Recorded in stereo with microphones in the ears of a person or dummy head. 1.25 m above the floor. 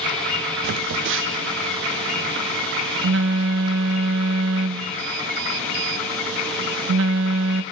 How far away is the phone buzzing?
About 0.5 m.